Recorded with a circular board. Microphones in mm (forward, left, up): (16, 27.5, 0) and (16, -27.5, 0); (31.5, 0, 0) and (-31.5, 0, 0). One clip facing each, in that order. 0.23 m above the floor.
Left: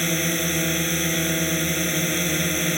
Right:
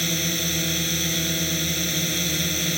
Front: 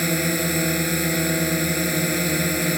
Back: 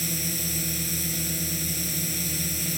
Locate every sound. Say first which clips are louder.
0.0 s a drone: left 3 dB, front 11 dB; 25° left